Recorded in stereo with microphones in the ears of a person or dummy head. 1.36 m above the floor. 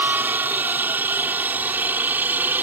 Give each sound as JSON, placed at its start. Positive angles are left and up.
{"t": 0.0, "sound": "a helicopter", "side_deg": -10}